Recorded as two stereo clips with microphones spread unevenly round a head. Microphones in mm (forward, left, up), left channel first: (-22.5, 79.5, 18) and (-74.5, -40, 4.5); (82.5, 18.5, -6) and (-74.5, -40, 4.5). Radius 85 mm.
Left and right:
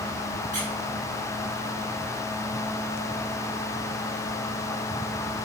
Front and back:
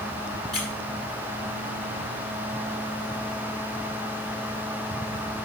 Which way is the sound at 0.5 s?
70° right.